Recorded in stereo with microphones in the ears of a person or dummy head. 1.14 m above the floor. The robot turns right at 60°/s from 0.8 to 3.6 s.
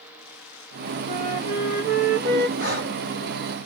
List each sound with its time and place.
1.1 s a flute: 155° right, 1.1 m; by 2.5 s 70° right, 1.1 m
2.6 s breathing: 70° right (ahead or behind), 2.0 m; by 3.0 s 50° right (ahead or behind), 2.0 m